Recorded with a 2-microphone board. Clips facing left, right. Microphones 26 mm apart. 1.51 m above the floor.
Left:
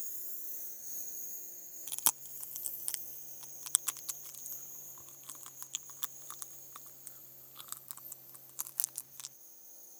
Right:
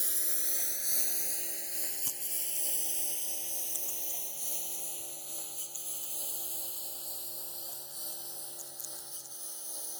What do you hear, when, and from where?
0.0 s a lawn mower: 80° right; by 10.0 s 85° right
1.9 s chewing: 85° left